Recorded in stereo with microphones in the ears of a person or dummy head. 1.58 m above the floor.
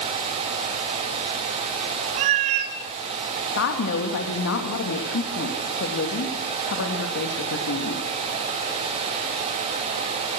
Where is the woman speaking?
70° left (ahead or behind), 3 m.